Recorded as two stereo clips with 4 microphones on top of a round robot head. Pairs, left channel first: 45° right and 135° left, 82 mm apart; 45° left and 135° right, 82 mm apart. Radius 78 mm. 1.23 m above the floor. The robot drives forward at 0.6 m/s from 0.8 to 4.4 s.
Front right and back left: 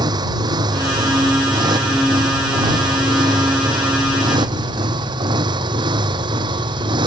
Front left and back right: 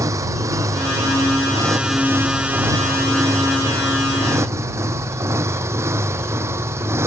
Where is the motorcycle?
170° left; by 7.1 s 165° left.